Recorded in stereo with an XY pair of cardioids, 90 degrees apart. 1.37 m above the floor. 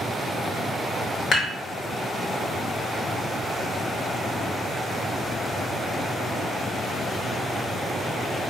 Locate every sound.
1.3 s dishes clattering: 70° left, 1.1 m